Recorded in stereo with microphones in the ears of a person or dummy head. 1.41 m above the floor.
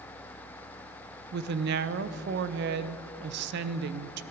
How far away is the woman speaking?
About 0.9 m.